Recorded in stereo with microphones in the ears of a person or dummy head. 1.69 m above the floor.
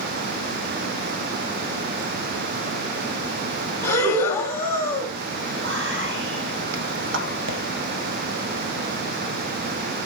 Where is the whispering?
70° right (ahead or behind), 1.6 m.